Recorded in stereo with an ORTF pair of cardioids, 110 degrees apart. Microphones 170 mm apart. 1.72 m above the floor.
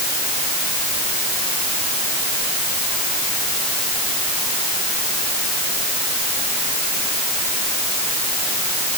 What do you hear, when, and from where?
Only background noise.